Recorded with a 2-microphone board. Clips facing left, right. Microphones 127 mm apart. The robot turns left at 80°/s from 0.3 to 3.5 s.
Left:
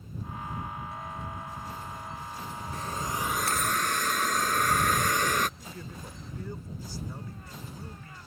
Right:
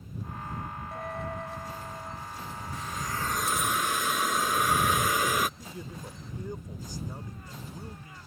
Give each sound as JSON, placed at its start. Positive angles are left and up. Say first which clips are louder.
{"t": 0.9, "sound": "a dropped coin", "louder": "right 3 dB", "side_deg": -55}
{"t": 2.7, "sound": "a hiss", "louder": "left 2 dB", "azimuth_deg": 55}
{"t": 5.6, "sound": "a man speaking", "louder": "right 1 dB", "side_deg": -20}